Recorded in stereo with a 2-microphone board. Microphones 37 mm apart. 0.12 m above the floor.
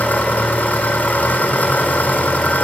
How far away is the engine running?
About 4.5 m.